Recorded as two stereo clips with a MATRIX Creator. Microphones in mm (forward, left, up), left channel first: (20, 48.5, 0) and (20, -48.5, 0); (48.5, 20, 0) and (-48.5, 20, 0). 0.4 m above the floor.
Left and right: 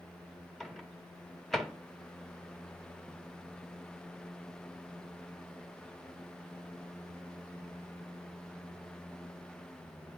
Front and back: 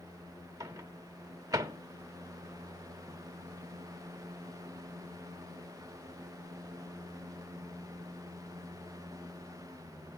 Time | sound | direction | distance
0.6 | a microwave | 175° left | 0.9 m